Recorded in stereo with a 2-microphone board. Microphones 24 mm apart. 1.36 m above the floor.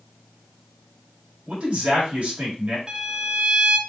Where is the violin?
30° right (ahead or behind), 0.7 m.